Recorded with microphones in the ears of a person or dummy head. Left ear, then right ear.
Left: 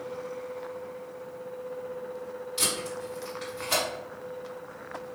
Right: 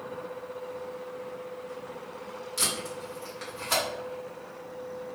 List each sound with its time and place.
2.6 s tape being pulled: 25° right (ahead or behind), 1.8 m